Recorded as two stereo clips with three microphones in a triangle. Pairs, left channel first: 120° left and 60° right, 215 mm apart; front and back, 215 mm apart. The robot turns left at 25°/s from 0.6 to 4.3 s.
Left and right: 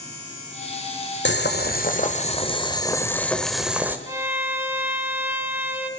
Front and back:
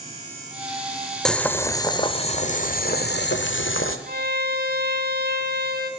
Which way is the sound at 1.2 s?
85° left.